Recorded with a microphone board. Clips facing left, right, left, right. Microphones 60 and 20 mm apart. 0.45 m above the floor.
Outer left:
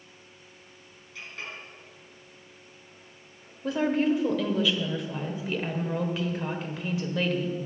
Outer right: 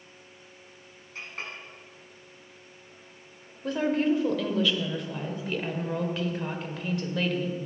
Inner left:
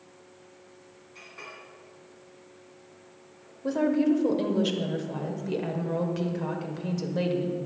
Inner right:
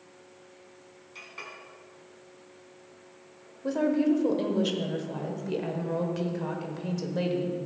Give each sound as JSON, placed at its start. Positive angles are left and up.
{"t": 1.1, "sound": "a clink", "side_deg": -40, "distance_m": 3.0}
{"t": 3.6, "sound": "a woman speaking", "side_deg": 5, "distance_m": 1.3}